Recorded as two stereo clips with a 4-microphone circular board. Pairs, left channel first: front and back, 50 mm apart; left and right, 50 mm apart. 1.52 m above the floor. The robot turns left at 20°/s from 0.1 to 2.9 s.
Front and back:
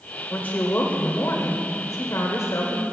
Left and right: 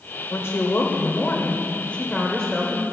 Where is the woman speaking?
50° left, 1.0 m; by 2.8 s straight ahead, 1.0 m.